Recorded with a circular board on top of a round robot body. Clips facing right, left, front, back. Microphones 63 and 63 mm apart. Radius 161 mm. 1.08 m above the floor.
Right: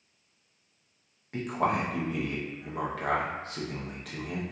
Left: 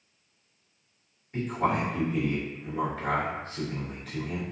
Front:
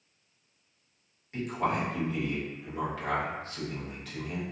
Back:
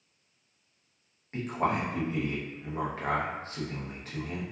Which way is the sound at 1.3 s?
120° right.